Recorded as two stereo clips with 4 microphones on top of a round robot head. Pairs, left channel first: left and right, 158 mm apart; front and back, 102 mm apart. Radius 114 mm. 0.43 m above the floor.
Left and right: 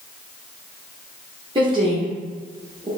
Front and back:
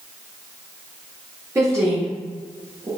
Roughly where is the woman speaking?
Behind right.